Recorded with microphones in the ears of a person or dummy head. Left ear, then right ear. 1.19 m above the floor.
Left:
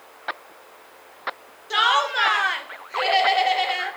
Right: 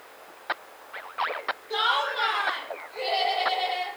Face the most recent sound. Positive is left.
turn(degrees=55)  # may be behind; listen again after turning